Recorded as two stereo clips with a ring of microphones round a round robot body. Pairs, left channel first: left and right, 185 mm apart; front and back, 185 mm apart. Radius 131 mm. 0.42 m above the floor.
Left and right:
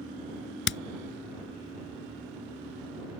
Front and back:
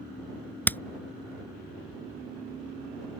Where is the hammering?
80° left.